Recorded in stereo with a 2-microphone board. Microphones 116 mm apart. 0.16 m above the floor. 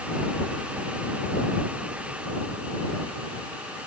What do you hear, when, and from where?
Only background noise.